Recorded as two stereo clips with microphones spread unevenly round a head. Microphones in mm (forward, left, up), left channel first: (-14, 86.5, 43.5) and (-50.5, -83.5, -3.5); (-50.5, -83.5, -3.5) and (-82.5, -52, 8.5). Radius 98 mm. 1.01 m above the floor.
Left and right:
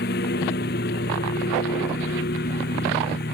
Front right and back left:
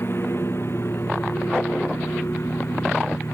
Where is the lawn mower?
35° left.